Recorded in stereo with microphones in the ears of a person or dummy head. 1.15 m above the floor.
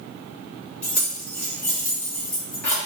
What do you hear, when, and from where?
0.8 s keys jangling: 5° left (ahead or behind), 1.3 m